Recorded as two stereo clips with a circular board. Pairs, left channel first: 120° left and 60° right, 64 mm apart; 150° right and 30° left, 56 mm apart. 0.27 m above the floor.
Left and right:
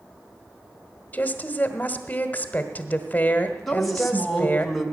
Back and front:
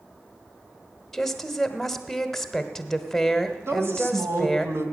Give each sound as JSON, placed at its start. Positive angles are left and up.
{"t": 1.1, "sound": "a woman speaking", "azimuth_deg": 130, "distance_m": 1.3}
{"t": 3.7, "sound": "a woman speaking", "azimuth_deg": 35, "distance_m": 1.9}